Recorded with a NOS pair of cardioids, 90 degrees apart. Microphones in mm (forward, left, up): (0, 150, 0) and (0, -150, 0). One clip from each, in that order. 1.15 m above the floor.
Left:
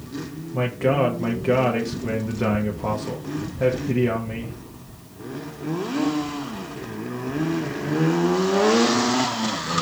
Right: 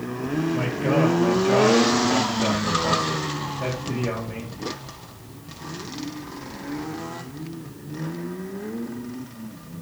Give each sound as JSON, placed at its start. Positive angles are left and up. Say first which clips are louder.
{"t": 0.5, "sound": "a man speaking", "louder": "left 4 dB", "azimuth_deg": 30, "distance_m": 0.8}